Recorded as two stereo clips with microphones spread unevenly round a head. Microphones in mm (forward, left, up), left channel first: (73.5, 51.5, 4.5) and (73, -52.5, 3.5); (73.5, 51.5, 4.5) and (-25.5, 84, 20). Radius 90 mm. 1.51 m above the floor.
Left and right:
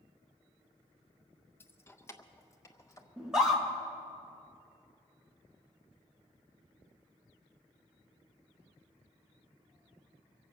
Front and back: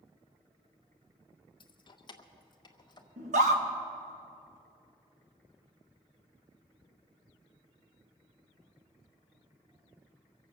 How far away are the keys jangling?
About 0.9 m.